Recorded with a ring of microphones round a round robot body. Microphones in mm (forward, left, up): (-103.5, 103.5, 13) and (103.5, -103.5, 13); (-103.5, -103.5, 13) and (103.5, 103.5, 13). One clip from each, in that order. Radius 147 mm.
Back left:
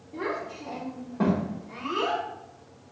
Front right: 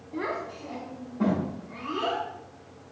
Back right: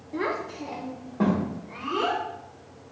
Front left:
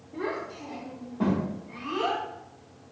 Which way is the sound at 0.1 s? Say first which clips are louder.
Even, back right 4 dB; 105° right.